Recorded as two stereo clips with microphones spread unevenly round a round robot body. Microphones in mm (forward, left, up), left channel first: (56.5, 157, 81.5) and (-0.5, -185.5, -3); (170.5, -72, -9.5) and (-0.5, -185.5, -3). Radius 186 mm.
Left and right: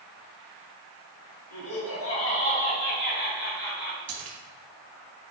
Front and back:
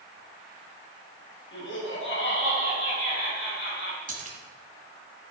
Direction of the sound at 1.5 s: 30° left.